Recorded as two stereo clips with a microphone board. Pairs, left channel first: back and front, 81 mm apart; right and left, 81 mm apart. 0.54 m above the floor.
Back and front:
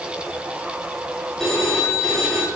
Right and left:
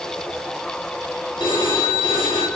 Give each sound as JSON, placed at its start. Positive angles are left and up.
{"t": 1.4, "sound": "a phone ringing", "azimuth_deg": -95, "distance_m": 5.5}